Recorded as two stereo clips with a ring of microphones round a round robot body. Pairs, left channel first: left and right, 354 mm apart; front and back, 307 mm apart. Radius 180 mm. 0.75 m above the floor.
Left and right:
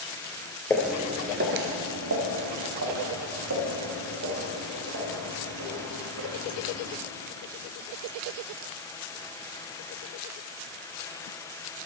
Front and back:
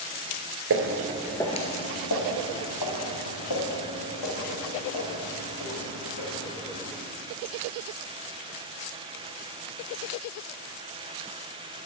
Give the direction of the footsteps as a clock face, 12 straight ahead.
6 o'clock.